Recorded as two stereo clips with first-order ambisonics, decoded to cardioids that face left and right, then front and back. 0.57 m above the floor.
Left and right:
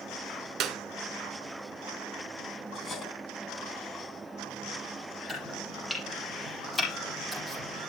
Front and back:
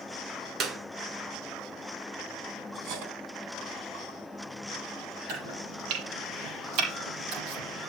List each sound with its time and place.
0.6 s a clap: 130° right, 1.9 m
2.7 s cutlery clinking: 155° left, 3 m
5.3 s chopping: 175° left, 5 m